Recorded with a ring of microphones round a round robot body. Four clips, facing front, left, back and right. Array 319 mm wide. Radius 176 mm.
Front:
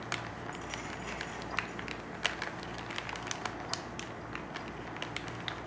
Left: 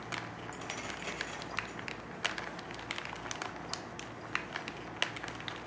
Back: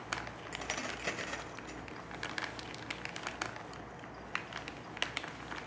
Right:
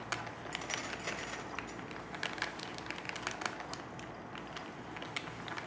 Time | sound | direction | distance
0.5 | keys jangling | 170° right | 1.5 m